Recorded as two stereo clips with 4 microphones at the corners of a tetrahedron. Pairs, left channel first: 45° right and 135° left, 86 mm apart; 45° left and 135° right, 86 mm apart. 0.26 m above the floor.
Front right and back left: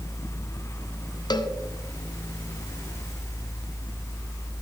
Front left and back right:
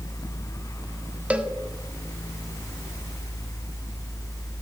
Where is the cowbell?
60° right, 0.8 m.